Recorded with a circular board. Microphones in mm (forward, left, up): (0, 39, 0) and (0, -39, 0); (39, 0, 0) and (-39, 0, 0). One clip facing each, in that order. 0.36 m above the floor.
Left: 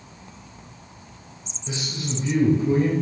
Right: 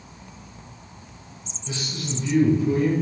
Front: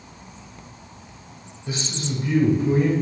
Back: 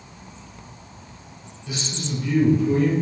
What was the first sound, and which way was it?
A man speaking, 30° left.